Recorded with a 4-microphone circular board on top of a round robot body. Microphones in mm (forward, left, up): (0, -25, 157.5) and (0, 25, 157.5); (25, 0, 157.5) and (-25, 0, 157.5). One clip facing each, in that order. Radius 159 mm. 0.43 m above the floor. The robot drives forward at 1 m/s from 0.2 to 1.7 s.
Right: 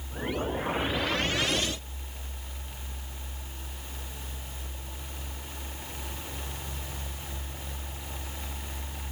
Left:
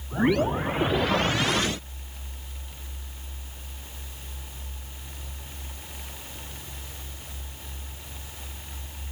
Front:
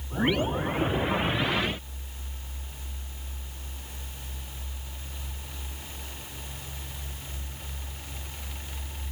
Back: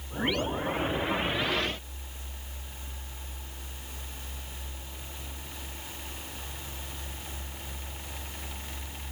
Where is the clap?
I don't hear a clap.